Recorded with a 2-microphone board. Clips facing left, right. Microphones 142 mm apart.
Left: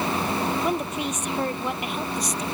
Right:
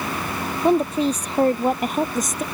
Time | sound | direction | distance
0.6 | a woman speaking | 30° right (ahead or behind) | ?